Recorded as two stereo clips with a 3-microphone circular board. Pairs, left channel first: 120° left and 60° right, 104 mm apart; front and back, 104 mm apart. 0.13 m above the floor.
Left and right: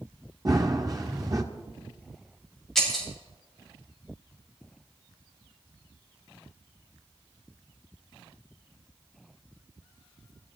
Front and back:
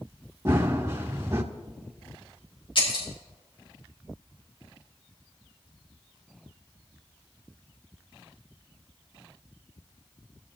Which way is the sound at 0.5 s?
115° right.